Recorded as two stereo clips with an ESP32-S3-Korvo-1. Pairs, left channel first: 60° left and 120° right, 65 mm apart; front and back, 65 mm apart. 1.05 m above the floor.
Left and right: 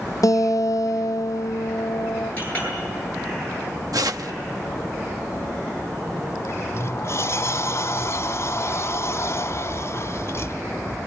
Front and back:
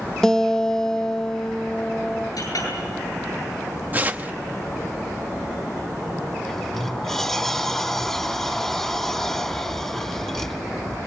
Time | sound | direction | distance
0.2 | a guitar | 80° left | 0.8 m
2.4 | a clink | 5° right | 10 m
3.9 | tearing paper | 120° right | 0.8 m
6.5 | a sliding door | 80° left | 1.3 m